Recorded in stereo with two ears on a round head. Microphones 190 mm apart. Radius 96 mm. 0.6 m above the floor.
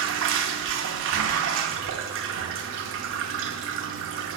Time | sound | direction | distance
0.0 | running water | 65° right (ahead or behind) | 0.8 m